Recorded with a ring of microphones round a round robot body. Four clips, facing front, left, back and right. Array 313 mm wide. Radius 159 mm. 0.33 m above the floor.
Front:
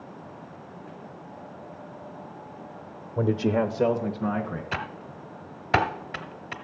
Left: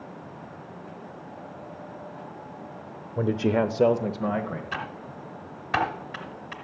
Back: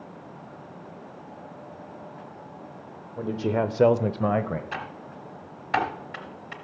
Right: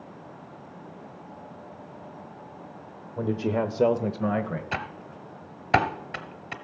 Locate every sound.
3.2 s a man speaking: 35° left, 1.0 m; by 4.6 s 165° right, 1.7 m
4.7 s typing on a keyboard: 50° right, 1.0 m